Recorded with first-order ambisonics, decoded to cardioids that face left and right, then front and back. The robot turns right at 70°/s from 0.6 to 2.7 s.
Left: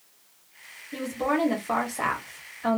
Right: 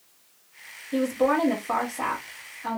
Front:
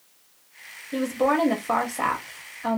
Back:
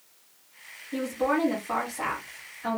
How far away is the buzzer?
I don't hear a buzzer.